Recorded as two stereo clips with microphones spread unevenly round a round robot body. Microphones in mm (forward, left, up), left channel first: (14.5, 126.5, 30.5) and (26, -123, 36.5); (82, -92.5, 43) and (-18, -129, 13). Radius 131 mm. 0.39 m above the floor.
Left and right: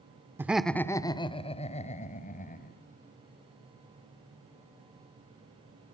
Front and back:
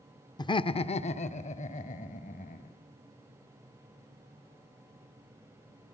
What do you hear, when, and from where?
0.4 s laughter: 15° right, 0.8 m; by 2.8 s 35° left, 2.5 m